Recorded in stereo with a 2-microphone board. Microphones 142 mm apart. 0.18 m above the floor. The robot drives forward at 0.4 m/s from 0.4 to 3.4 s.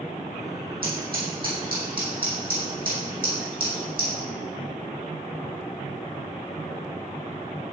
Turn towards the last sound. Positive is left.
turn(degrees=-75)  # may be behind; listen again after turning